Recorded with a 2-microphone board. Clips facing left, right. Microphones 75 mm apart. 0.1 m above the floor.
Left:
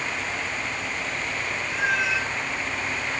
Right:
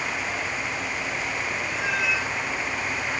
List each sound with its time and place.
1.7 s a cat meowing: 65° left (ahead or behind), 3 m